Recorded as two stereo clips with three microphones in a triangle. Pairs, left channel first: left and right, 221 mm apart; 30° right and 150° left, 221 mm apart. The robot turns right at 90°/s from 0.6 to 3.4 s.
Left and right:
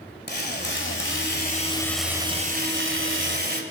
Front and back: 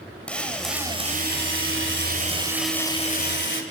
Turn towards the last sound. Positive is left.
turn(degrees=-55)